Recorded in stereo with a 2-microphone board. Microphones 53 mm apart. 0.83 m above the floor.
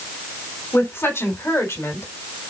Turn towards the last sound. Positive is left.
turn(degrees=70)  # may be behind; listen again after turning